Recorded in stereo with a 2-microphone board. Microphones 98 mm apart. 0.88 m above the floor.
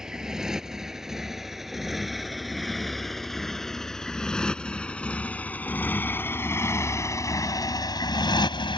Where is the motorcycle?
5° right (ahead or behind); by 8.8 s 55° left (ahead or behind).